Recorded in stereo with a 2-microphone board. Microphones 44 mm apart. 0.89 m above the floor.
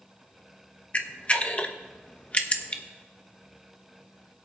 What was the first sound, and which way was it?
A camera shutter, 30° left (ahead or behind).